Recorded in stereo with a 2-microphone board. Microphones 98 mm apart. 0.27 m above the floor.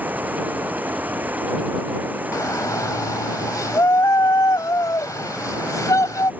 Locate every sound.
0.0 s running water: 15° right (ahead or behind)
2.3 s a shout: 35° left (ahead or behind)